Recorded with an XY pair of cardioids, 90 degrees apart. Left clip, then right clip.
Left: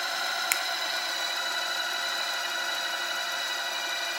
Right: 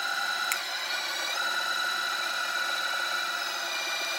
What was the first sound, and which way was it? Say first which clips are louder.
A finger snap: left 2 dB; 35° left.